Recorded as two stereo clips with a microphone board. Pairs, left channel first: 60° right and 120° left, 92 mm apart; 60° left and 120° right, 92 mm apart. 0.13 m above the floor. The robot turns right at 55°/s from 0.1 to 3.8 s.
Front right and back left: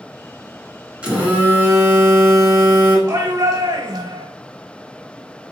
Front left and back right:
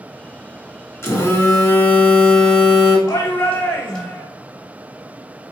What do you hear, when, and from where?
1.0 s a phone buzzing: 55° left, 1.6 m; by 3.0 s 165° left, 1.6 m
3.1 s a shout: 95° left, 2 m; by 4.2 s 135° left, 2 m